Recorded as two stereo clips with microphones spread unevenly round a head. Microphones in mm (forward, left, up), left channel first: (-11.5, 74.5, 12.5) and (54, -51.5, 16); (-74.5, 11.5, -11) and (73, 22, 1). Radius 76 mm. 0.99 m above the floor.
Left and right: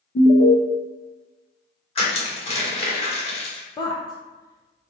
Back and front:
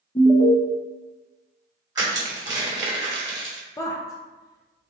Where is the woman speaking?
145° left, 0.6 m.